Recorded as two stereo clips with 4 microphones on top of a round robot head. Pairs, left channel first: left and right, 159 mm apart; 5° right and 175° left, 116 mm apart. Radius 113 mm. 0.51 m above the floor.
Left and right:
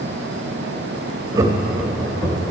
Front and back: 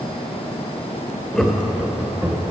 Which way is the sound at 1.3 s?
80° right.